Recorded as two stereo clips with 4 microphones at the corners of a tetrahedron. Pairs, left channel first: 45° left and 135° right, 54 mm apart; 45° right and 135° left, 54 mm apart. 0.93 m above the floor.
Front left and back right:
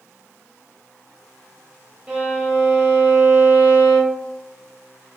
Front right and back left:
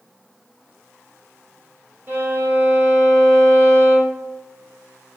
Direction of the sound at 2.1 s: 160° left.